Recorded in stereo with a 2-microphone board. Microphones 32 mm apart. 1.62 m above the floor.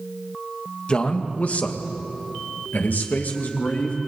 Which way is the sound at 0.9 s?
35° left (ahead or behind).